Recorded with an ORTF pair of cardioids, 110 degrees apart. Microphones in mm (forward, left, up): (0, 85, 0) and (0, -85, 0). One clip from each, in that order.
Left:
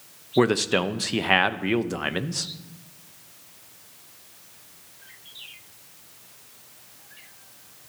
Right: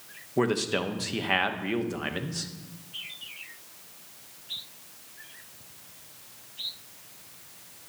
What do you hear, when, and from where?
0.4 s a man speaking: 30° left, 0.8 m